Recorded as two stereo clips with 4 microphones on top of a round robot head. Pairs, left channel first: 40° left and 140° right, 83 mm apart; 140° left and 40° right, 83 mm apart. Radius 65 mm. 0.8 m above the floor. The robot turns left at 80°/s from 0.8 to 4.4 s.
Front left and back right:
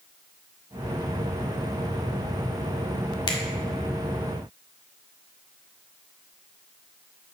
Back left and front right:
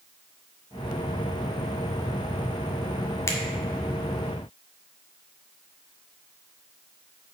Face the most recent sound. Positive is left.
turn(degrees=-10)